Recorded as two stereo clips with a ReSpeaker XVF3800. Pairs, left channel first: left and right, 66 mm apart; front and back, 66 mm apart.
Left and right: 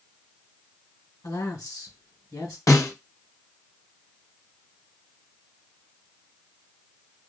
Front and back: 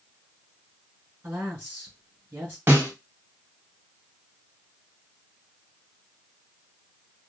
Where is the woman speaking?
120° left, 4.5 m.